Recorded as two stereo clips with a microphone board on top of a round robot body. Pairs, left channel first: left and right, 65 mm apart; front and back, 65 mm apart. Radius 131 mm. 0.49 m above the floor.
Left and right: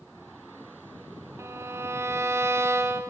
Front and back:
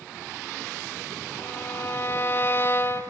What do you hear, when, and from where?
1.4 s a violin: 50° right, 1.4 m